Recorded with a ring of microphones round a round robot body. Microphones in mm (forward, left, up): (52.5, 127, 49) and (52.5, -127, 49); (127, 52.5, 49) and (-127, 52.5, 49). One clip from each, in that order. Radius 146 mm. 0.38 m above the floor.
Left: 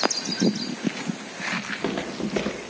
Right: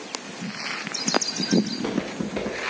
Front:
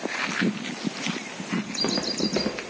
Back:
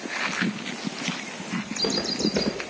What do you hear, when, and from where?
1.6 s footsteps: 40° left, 2.5 m; by 2.7 s 55° left, 2.5 m